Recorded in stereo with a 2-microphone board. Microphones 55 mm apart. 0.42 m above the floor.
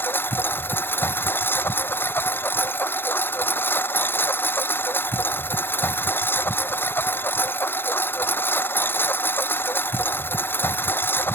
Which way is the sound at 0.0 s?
40° left (ahead or behind).